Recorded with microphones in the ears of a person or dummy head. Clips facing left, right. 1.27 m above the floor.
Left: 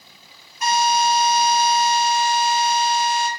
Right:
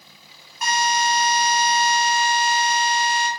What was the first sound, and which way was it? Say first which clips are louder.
A drill: left 3 dB; 50° right (ahead or behind).